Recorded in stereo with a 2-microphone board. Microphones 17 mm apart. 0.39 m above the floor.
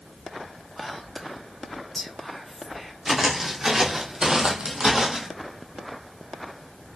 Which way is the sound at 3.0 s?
20° right (ahead or behind).